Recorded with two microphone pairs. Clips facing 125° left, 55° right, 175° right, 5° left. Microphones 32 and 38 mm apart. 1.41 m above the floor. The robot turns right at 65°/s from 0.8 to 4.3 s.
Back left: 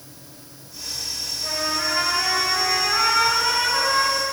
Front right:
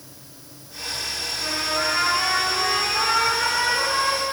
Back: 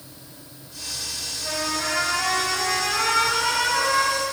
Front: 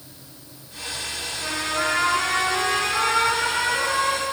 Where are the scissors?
No scissors in this recording.